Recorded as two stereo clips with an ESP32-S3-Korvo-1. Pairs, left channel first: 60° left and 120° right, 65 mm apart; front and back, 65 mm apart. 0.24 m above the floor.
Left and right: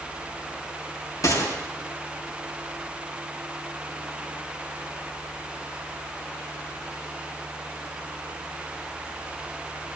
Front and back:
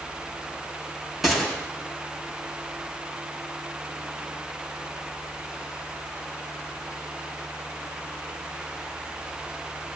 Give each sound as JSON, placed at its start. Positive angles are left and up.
{"t": 1.2, "sound": "a gunshot", "azimuth_deg": 90, "distance_m": 5.5}